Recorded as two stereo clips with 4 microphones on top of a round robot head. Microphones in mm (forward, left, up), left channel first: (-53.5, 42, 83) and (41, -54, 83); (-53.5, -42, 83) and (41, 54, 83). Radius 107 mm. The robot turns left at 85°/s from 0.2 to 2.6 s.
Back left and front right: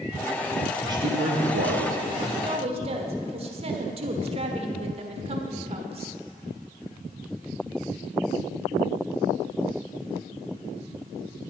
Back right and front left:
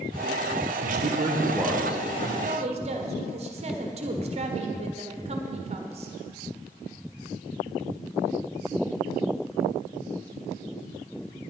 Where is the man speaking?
25° left, 1.5 m; by 2.3 s 100° right, 1.5 m.